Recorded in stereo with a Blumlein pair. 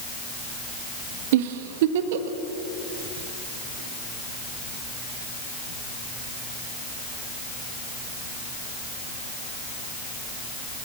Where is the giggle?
50° right, 1.6 m.